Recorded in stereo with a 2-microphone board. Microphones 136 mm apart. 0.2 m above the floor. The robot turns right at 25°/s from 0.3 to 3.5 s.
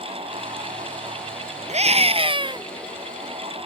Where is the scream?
55° right (ahead or behind); by 2.7 s 35° right (ahead or behind).